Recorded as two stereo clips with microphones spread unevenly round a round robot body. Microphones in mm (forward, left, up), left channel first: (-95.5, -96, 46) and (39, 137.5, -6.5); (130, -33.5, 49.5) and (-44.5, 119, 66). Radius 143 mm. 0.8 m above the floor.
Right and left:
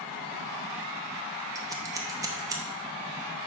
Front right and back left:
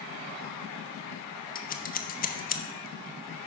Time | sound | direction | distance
1.6 | scissors | 5° right | 0.9 m